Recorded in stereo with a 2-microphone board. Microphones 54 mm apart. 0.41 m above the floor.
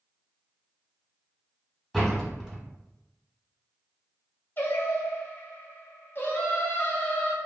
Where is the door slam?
5° left (ahead or behind), 1.2 m.